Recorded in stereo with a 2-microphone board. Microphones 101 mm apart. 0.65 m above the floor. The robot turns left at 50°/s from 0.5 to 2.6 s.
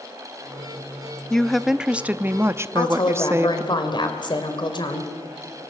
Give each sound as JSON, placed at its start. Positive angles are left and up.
{"t": 1.3, "sound": "a woman speaking", "azimuth_deg": 10, "distance_m": 0.7}
{"t": 2.8, "sound": "a woman speaking", "side_deg": 45, "distance_m": 2.5}